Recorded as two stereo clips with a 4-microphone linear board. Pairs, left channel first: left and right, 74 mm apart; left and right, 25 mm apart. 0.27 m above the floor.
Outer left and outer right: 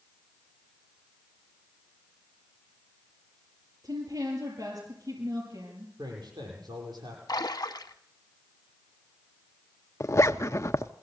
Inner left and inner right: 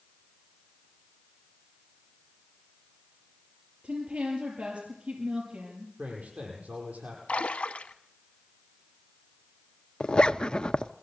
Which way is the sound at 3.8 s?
55° right (ahead or behind).